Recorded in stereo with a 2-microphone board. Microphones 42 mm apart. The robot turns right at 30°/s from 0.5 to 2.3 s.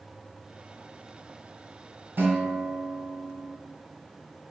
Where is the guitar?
60° right (ahead or behind), 1.0 m.